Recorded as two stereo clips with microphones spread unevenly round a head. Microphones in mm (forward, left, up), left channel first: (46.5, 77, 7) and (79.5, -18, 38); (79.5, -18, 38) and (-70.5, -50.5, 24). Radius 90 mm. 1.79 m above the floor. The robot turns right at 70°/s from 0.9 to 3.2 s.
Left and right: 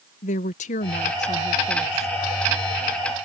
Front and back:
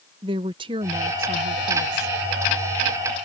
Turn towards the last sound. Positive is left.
turn(degrees=-70)